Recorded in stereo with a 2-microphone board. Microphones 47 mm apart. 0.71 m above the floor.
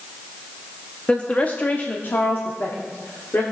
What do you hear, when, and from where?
1.1 s a woman speaking: 25° left (ahead or behind), 0.9 m; by 3.4 s 60° left (ahead or behind), 1.9 m